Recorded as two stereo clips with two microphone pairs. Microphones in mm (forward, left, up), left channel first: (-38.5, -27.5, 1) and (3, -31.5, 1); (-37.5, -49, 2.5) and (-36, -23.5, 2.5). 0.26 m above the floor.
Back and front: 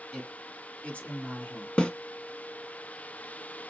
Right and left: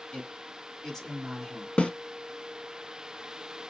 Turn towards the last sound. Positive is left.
turn(degrees=-125)